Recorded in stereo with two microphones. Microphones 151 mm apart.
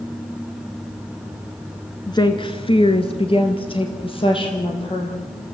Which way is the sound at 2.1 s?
25° left (ahead or behind).